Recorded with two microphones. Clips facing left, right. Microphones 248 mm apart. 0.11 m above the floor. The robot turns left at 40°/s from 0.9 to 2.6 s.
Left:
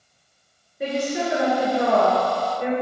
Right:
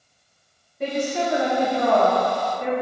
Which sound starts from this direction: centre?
A woman speaking, at 0.8 s.